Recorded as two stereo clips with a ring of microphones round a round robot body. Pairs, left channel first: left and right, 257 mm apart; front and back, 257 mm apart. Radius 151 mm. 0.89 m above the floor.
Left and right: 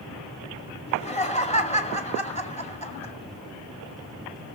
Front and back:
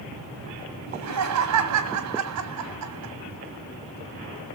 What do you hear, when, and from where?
0.9 s laughter: 155° left, 2 m